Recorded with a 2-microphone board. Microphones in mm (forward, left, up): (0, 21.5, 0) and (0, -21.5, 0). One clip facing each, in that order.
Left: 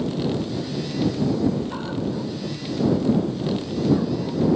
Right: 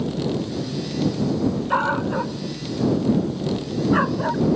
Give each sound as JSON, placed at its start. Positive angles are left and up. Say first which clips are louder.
{"t": 1.7, "sound": "a dog barking", "louder": "right 6 dB", "side_deg": -50}